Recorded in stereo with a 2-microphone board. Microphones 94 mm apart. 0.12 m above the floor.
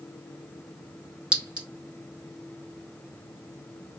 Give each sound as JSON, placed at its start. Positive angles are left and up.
{"t": 1.3, "sound": "a clink", "side_deg": -10, "distance_m": 1.0}